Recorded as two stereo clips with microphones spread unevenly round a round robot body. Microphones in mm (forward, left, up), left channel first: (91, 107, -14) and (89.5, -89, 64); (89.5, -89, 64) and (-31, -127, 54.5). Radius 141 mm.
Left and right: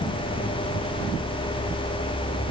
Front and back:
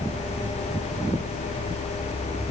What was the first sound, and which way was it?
Only background noise.